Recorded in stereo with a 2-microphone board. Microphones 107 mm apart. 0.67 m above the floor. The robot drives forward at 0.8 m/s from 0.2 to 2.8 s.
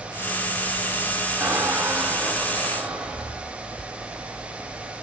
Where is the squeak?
20° right (ahead or behind), 1.0 m; by 3.6 s 10° right (ahead or behind), 2 m.